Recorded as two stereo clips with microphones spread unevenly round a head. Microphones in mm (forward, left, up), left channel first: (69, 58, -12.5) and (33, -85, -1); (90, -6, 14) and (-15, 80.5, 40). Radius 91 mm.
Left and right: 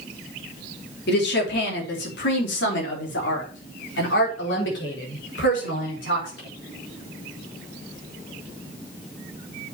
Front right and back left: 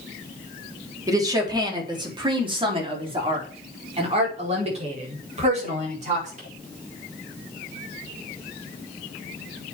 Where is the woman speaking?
75° left, 3.5 m; by 6.5 s 105° left, 5.5 m.